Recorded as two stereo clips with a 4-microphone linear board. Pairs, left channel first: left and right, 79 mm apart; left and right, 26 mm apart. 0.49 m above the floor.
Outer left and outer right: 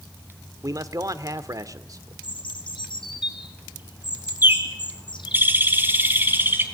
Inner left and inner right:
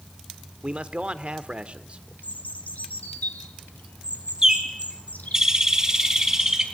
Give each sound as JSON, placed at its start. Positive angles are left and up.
{"t": 0.6, "sound": "a man speaking", "side_deg": -45, "distance_m": 1.2}
{"t": 2.2, "sound": "a bird", "side_deg": 85, "distance_m": 2.5}
{"t": 4.4, "sound": "a bird", "side_deg": -25, "distance_m": 3.5}